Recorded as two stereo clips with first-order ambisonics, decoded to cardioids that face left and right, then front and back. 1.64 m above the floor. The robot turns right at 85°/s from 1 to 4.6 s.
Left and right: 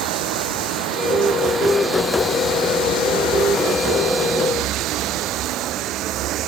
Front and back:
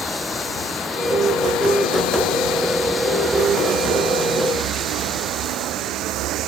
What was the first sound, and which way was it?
Running water, 85° right.